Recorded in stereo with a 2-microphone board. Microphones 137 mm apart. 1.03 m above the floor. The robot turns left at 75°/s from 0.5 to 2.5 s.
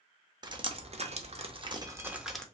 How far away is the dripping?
About 0.6 m.